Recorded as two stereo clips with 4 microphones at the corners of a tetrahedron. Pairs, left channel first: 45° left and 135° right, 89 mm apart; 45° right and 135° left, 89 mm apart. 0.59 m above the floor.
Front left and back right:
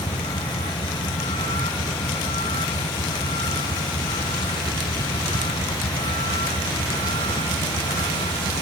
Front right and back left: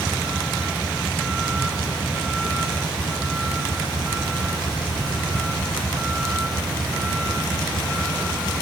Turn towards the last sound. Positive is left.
turn(degrees=55)